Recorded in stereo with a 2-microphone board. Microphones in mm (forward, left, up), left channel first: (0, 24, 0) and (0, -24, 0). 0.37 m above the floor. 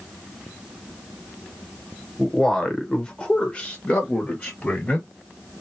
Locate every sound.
2.2 s a man speaking: 10° left (ahead or behind), 1.1 m; by 5.1 s 25° left (ahead or behind), 1.4 m